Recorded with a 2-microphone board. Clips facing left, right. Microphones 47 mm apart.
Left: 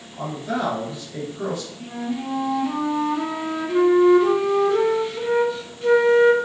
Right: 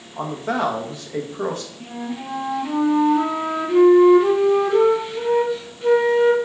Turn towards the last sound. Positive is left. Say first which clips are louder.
# left 2 dB
turn(degrees=-10)  # may be behind; listen again after turning